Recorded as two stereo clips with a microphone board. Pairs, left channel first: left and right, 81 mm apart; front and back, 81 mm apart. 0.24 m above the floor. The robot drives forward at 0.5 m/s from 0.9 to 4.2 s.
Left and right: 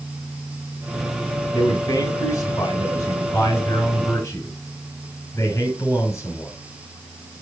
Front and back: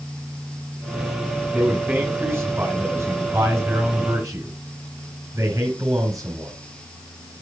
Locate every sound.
1.5 s a man speaking: 105° left, 2 m; by 6.5 s 135° left, 2.5 m